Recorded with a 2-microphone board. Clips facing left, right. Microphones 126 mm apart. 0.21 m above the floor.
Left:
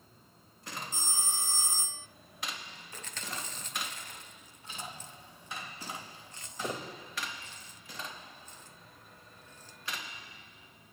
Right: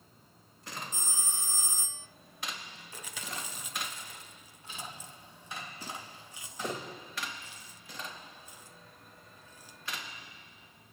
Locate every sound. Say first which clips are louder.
0.9 s a phone ringing: left 3 dB; 40° left (ahead or behind), 1.1 m
2.9 s chewing: even; 10° right (ahead or behind), 0.9 m